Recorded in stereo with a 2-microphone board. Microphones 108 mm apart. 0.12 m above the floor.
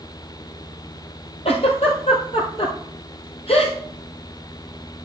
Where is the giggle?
65° left (ahead or behind), 1.8 m.